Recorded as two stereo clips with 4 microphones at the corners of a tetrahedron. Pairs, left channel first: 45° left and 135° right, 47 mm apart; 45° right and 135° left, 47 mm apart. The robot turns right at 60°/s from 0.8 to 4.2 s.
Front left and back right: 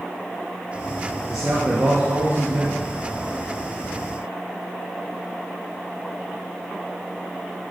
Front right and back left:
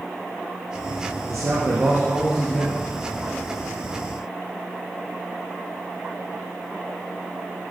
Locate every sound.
1.3 s a man speaking: 150° left, 4 m; by 2.8 s 120° right, 4 m